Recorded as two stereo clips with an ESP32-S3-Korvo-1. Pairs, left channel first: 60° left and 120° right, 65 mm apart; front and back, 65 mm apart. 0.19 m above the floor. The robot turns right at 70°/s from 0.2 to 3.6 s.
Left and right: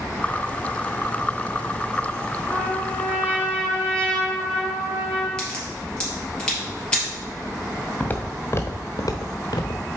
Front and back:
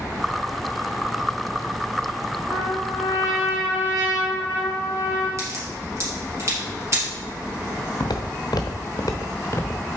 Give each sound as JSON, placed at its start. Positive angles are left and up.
{"t": 2.5, "sound": "a trumpet", "azimuth_deg": 130, "distance_m": 4.0}
{"t": 5.4, "sound": "a crack", "azimuth_deg": 135, "distance_m": 3.5}
{"t": 8.0, "sound": "footsteps", "azimuth_deg": -5, "distance_m": 1.0}